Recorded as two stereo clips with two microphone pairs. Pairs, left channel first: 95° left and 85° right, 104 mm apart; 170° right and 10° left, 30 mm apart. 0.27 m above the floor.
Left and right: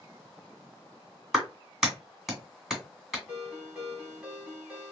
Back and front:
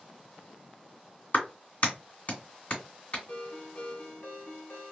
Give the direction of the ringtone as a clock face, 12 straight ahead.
6 o'clock.